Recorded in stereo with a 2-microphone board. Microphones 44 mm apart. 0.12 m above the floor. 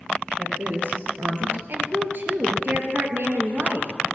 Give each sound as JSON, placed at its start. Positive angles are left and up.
{"t": 0.4, "sound": "a woman speaking", "side_deg": -40, "distance_m": 3.0}
{"t": 1.7, "sound": "a woman speaking", "side_deg": -50, "distance_m": 2.0}